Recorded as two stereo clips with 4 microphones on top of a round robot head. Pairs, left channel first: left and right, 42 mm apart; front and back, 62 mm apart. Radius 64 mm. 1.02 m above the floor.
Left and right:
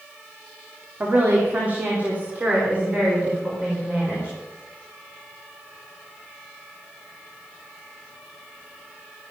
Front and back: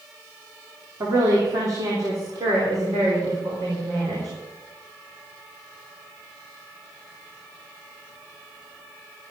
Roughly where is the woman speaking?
Behind right.